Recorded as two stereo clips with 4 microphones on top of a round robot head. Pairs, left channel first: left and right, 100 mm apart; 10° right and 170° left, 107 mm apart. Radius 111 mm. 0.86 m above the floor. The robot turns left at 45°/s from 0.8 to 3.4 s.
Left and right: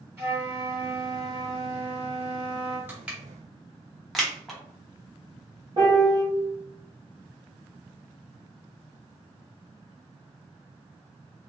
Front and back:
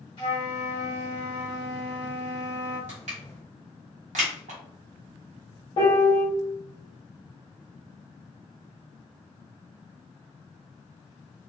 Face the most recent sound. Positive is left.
turn(degrees=-45)